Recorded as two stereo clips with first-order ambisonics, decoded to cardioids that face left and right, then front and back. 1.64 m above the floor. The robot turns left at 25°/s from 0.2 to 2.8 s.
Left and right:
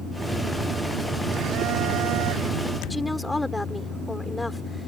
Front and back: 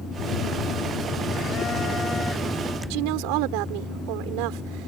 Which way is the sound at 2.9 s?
175° left.